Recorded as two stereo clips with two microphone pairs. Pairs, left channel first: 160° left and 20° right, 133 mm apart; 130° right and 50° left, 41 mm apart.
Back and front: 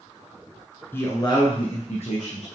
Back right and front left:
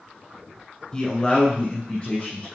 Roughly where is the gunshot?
No gunshot in this recording.